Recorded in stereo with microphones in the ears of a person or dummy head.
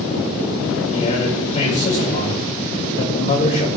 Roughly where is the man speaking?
Left.